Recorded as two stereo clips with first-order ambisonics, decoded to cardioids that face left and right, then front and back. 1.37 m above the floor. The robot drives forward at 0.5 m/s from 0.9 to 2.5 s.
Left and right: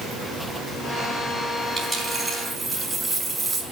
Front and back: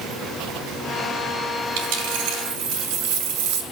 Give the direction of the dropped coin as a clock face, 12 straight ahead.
6 o'clock.